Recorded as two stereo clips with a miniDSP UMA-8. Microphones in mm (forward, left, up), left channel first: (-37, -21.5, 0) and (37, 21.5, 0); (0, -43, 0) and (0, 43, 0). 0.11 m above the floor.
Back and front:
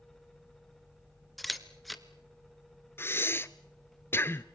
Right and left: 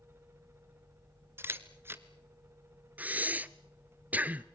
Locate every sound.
1.4 s a camera shutter: 120° left, 1.4 m
3.0 s breathing: 155° left, 0.8 m